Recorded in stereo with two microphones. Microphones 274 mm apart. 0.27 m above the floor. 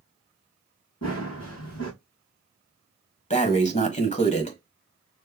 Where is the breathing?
25° left (ahead or behind), 1.3 m.